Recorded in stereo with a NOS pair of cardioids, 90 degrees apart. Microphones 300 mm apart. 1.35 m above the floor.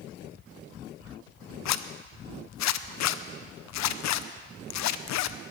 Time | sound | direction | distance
1.6 | a zipper | 65° left | 0.7 m